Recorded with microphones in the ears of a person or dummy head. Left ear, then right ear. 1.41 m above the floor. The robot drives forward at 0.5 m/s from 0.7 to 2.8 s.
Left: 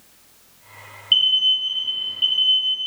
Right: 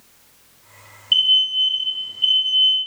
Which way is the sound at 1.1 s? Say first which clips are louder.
Right 1 dB; 5° left (ahead or behind).